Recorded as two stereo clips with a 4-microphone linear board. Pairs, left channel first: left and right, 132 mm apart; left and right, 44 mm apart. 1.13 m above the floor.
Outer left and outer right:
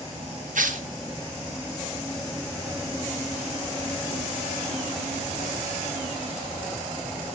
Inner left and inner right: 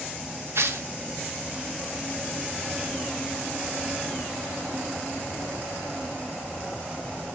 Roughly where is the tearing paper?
Right.